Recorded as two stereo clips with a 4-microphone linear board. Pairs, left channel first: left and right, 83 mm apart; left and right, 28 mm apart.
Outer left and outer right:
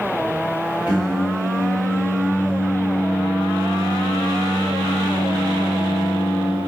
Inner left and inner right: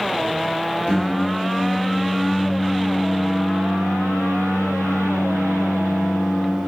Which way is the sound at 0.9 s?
60° left (ahead or behind).